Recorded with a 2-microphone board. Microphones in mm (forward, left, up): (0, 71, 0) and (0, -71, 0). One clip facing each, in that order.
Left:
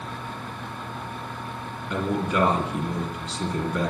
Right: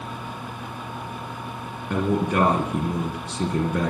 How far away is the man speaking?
About 3 m.